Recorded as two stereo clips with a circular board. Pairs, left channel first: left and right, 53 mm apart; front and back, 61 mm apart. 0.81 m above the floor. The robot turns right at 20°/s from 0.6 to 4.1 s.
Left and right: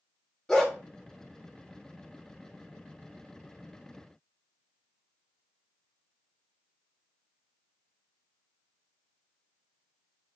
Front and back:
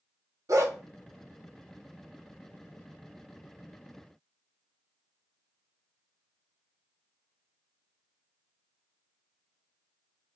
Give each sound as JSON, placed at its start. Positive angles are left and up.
{"t": 0.5, "sound": "a dog barking", "azimuth_deg": 170, "distance_m": 0.8}